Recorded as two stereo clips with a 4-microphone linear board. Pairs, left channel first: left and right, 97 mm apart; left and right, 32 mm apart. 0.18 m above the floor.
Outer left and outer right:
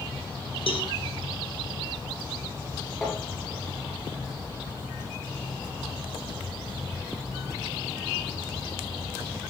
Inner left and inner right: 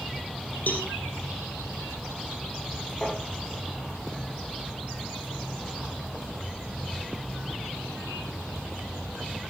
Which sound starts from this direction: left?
A cowbell, at 0.7 s.